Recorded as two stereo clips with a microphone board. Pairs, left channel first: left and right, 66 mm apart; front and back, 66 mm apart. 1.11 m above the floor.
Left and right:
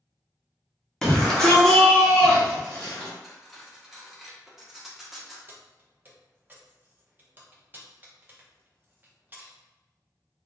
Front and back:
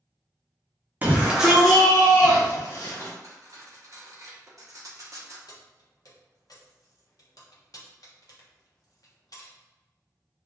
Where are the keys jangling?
25° right, 0.6 m.